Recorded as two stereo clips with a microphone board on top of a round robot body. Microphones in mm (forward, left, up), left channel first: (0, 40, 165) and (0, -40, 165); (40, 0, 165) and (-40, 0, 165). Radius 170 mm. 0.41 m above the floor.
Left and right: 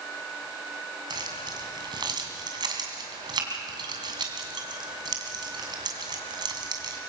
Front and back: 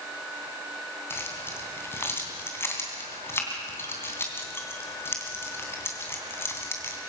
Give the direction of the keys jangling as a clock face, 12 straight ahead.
2 o'clock.